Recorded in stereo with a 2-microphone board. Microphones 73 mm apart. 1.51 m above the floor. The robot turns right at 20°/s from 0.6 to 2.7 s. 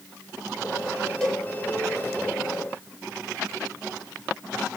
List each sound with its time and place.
1.2 s a cowbell: 10° left (ahead or behind), 1.6 m